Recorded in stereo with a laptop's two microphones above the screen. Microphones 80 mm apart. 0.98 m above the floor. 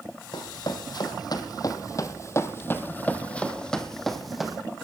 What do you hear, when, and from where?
0.3 s running footsteps: 60° left (ahead or behind), 2.0 m; by 4.6 s 5° right (ahead or behind), 2 m